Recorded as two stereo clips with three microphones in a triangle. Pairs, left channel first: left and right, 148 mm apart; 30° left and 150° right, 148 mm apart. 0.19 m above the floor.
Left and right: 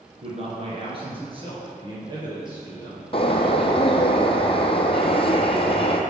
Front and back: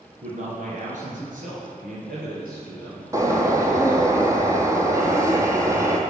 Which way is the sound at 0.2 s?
125° right.